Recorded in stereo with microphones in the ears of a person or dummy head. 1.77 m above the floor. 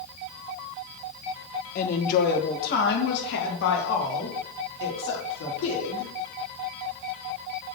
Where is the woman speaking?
45° left (ahead or behind), 1.7 m; by 6.1 s 75° left (ahead or behind), 3.5 m.